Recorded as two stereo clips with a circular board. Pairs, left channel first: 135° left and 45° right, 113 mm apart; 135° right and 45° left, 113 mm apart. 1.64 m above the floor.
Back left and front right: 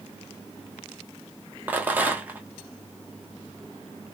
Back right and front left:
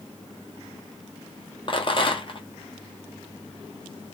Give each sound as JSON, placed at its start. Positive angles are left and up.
{"t": 1.7, "sound": "a rattle", "azimuth_deg": -115, "distance_m": 1.1}